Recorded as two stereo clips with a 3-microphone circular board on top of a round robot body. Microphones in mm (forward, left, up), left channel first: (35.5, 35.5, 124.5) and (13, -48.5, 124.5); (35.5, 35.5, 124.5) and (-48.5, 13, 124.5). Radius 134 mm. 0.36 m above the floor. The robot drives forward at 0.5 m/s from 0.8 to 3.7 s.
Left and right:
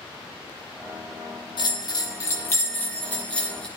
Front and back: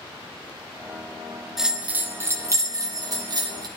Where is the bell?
110° left, 0.6 m; by 3.7 s 155° left, 1.4 m.